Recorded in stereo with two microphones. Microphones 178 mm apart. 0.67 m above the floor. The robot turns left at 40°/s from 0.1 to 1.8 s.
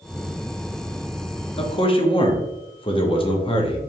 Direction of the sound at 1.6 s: 35° left (ahead or behind).